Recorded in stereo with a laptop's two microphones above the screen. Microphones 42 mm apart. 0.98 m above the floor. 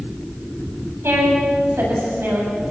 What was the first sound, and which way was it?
A woman speaking, 80° right.